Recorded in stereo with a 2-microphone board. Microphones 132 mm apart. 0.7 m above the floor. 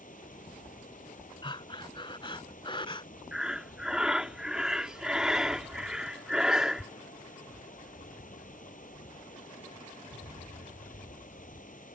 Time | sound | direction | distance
0.0 | running water | 85° left | ?
1.4 | breathing | 40° left (ahead or behind) | ?
3.3 | breathing | 5° right (ahead or behind) | ?